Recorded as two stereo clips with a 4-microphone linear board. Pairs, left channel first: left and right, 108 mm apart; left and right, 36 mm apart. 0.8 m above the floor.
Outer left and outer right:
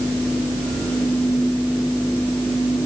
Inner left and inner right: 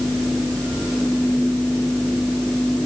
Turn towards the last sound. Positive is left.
No sound to turn to.